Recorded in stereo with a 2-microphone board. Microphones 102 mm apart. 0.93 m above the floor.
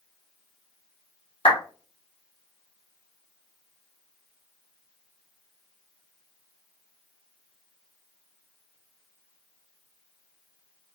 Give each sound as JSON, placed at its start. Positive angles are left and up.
{"t": 1.4, "sound": "a clap", "side_deg": 65, "distance_m": 1.9}